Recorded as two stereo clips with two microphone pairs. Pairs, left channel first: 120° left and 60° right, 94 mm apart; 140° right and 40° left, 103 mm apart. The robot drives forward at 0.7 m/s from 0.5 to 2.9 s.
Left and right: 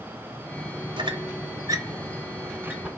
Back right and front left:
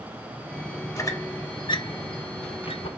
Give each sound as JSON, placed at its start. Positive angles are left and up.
{"t": 1.0, "sound": "a squeak", "azimuth_deg": -85, "distance_m": 1.4}